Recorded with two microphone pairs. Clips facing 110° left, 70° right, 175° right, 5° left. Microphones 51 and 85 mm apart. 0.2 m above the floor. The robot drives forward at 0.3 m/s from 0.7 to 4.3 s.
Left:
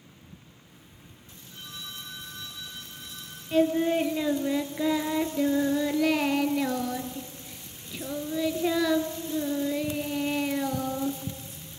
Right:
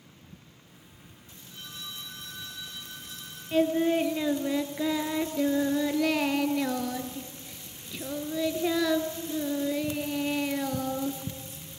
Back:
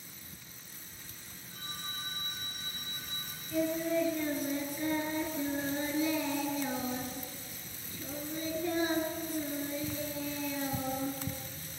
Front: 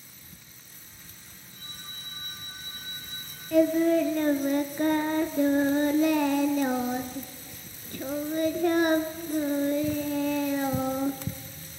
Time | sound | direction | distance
1.5 | a phone ringing | 160° right | 7 m
3.5 | singing | 15° left | 1.3 m